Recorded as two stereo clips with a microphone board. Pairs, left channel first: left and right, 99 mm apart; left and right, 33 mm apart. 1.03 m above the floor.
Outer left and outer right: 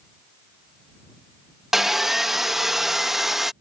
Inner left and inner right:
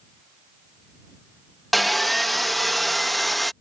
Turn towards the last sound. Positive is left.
turn(degrees=0)  # may be behind; listen again after turning